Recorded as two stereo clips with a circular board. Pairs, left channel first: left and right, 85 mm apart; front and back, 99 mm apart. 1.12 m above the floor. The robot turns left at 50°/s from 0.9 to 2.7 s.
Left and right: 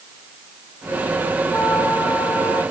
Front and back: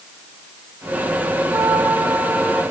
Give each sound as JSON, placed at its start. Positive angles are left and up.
{"t": 1.5, "sound": "a trumpet", "azimuth_deg": 150, "distance_m": 2.5}